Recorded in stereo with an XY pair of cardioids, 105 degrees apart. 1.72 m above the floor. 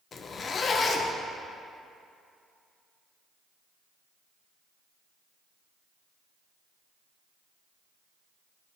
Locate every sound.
0.1 s a zipper: 45° left, 0.7 m